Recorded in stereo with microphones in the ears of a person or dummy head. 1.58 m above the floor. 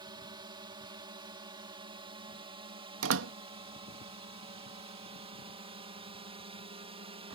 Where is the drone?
25° right (ahead or behind).